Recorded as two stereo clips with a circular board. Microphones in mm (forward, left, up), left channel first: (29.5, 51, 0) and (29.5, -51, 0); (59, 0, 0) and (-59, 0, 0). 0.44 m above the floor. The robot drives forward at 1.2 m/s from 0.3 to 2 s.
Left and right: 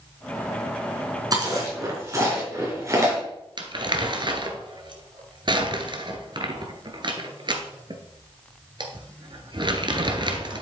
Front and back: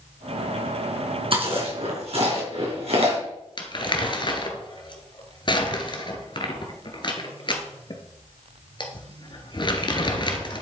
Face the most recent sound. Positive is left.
turn(degrees=-50)